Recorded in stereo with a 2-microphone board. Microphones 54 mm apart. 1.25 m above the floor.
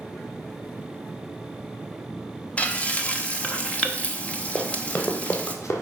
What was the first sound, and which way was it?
Frying, 25° left (ahead or behind).